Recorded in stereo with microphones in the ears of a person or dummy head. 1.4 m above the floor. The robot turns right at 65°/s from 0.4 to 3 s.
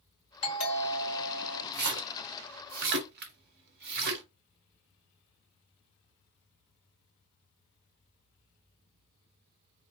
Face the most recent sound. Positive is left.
turn(degrees=-55)  # may be behind; listen again after turning